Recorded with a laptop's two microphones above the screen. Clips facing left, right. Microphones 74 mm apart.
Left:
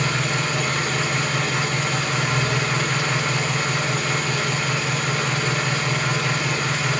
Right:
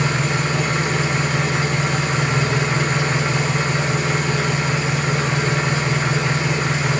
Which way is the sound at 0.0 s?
25° right (ahead or behind).